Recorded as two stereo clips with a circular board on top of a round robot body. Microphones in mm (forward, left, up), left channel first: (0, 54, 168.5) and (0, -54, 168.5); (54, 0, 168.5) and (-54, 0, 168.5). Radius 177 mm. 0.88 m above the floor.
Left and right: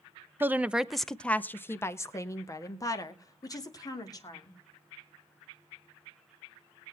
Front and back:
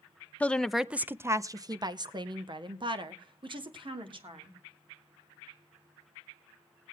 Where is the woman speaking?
55° right, 0.7 m; by 4.6 s 145° left, 2.0 m.